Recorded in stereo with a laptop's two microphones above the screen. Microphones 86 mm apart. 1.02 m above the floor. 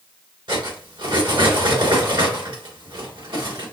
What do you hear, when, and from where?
0.5 s cutlery clinking: 70° right (ahead or behind), 2.5 m